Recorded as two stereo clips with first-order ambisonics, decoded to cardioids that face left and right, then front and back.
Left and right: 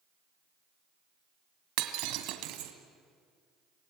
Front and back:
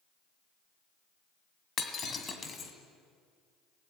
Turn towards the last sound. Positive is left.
turn(degrees=-65)